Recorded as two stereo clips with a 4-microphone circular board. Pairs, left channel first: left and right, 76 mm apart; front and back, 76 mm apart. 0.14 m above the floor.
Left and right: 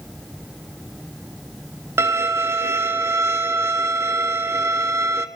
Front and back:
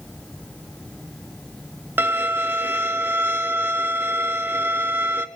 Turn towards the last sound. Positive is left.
turn(degrees=-130)